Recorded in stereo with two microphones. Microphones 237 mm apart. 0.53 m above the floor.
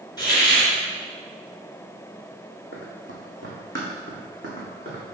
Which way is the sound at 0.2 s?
15° left (ahead or behind).